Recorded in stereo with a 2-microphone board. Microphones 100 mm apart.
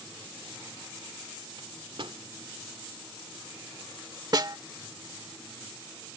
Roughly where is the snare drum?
Right.